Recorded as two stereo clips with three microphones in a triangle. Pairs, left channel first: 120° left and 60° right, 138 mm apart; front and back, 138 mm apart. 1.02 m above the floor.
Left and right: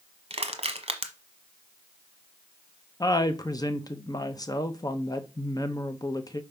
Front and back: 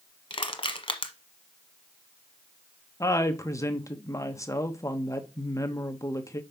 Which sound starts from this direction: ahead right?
Crushing, at 0.3 s.